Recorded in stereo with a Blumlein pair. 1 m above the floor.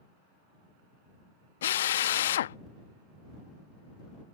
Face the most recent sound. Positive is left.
turn(degrees=60)